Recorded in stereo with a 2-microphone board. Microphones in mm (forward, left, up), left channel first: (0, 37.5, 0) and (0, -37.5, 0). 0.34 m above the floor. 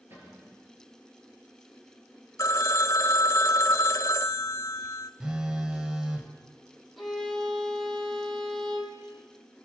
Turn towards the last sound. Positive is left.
turn(degrees=0)  # may be behind; listen again after turning